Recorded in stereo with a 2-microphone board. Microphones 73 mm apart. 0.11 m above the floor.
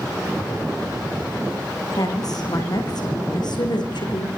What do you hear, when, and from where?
2.0 s a woman speaking: 55° left (ahead or behind), 6.5 m; by 4.3 s 70° left (ahead or behind), 6 m